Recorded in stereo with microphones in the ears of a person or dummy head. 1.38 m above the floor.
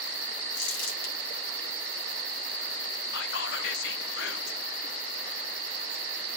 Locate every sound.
0.6 s crumpling: 75° left (ahead or behind), 5 m
3.1 s whispering: 60° left (ahead or behind), 0.7 m